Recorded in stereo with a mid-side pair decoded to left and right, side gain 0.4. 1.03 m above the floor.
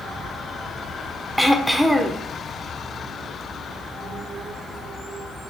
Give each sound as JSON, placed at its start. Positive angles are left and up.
{"t": 1.4, "sound": "throat clearing", "azimuth_deg": -5, "distance_m": 0.6}